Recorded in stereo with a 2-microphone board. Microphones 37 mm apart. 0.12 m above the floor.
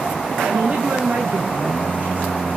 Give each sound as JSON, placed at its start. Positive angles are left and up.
{"t": 0.4, "sound": "a woman speaking", "side_deg": -50, "distance_m": 5.5}